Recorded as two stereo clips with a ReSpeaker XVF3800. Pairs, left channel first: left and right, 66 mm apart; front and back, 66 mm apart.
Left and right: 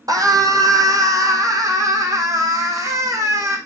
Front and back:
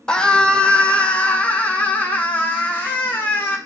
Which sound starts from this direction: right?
A scream, at 0.1 s.